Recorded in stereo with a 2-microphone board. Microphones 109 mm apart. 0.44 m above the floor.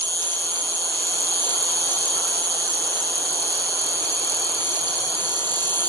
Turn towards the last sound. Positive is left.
turn(degrees=20)  # may be behind; listen again after turning